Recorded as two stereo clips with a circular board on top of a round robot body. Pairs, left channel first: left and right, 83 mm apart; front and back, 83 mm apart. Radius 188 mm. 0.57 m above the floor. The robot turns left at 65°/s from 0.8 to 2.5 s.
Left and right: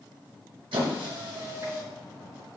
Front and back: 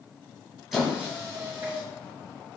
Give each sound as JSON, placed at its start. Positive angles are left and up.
{"t": 0.7, "sound": "a squeak", "azimuth_deg": -90, "distance_m": 1.1}